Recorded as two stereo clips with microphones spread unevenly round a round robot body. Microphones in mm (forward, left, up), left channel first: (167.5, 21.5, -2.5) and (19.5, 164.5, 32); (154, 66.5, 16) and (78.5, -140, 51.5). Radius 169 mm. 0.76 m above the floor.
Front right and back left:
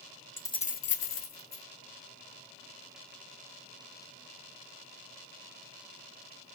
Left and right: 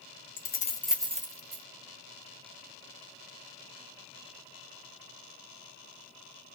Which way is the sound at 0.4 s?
35° left.